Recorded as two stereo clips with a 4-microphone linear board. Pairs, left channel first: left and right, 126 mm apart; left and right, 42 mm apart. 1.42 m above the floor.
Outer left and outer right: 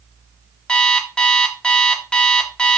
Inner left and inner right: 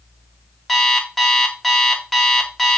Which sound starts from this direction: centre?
An alarm clock, at 0.7 s.